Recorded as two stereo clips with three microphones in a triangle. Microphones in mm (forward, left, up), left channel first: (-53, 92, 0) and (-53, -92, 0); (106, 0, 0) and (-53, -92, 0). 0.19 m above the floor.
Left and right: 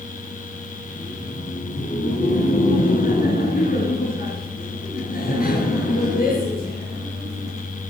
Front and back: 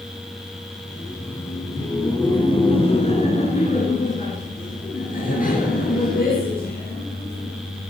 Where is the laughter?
115° left, 2.0 m; by 7.5 s 55° left, 5 m.